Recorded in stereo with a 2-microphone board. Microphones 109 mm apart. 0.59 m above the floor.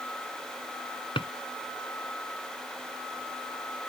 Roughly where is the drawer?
Left.